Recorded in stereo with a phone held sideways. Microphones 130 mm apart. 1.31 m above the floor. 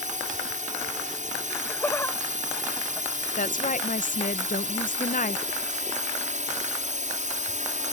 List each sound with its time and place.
0.0 s a drone: 70° right (ahead or behind)
1.5 s laughter: 15° left (ahead or behind)
3.4 s a woman speaking: 85° left